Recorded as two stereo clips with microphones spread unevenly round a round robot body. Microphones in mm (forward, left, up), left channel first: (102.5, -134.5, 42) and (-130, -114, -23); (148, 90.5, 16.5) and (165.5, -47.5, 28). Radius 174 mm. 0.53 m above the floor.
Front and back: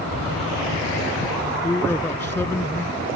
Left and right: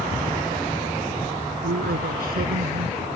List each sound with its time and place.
1.6 s a man speaking: 85° right